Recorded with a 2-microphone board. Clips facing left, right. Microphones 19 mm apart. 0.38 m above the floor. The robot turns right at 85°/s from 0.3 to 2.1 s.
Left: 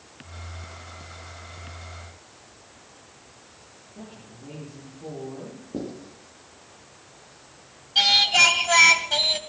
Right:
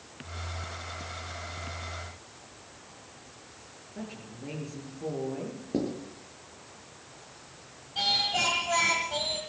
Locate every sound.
4.0 s a woman speaking: 50° right (ahead or behind), 8 m
5.7 s writing: 55° right (ahead or behind), 7 m
8.0 s singing: 65° left (ahead or behind), 1.6 m